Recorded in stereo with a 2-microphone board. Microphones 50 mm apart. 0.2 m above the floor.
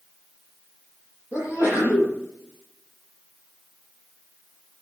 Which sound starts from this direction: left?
A sneeze, at 1.3 s.